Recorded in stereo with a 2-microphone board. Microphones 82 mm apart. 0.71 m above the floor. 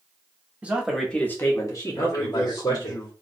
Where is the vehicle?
No vehicle in this recording.